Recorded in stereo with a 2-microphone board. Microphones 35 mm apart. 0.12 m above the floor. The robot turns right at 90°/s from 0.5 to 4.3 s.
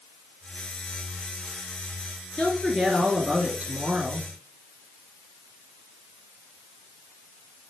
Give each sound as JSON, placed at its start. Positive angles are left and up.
{"t": 2.4, "sound": "a woman speaking", "azimuth_deg": 130, "distance_m": 2.0}